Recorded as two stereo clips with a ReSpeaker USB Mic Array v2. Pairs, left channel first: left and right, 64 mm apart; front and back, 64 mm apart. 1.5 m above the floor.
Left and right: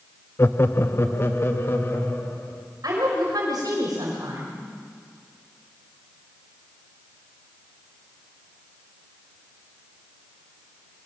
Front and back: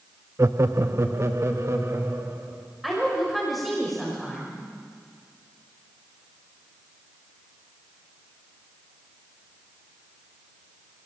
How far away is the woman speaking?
About 5.5 m.